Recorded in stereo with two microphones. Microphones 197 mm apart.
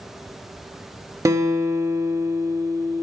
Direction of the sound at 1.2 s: 15° right (ahead or behind).